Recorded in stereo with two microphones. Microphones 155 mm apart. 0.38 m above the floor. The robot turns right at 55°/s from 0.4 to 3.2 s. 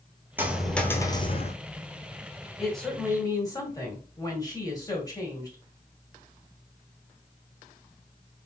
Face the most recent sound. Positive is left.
turn(degrees=30)